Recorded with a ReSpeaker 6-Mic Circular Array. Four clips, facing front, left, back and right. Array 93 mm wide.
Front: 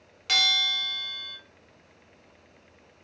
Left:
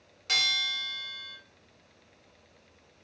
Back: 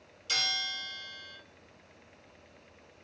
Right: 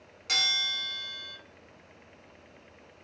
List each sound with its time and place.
0.3 s a bell: 5° right, 0.8 m